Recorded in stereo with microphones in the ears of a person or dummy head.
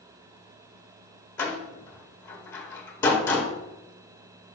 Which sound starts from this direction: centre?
A door slam, at 1.4 s.